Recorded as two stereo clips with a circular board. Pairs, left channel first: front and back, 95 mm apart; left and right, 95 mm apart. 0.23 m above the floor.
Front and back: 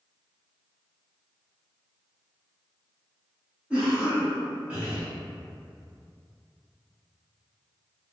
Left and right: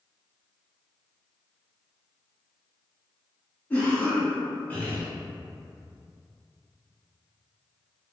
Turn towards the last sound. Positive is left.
turn(degrees=125)